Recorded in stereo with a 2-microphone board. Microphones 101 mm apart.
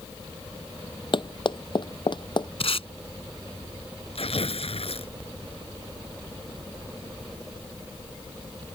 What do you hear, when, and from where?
1.1 s running footsteps: 50° left (ahead or behind); by 2.5 s 45° left (ahead or behind)
2.6 s tape being pulled: 65° left (ahead or behind)
4.2 s tearing paper: 65° left (ahead or behind)